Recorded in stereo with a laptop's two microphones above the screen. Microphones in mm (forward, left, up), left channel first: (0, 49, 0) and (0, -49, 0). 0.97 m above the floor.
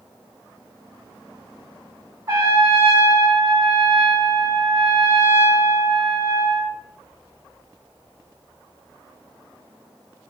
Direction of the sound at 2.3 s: 35° right (ahead or behind).